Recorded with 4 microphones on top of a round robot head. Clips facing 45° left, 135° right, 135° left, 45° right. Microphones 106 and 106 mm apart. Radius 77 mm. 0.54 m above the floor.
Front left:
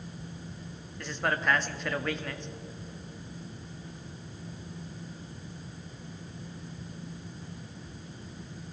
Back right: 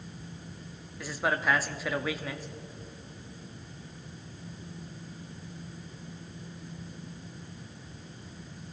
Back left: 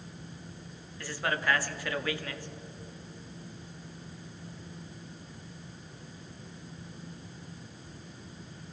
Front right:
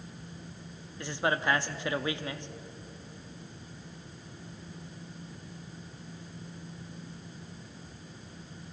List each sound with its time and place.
1.0 s a man speaking: 60° right, 0.7 m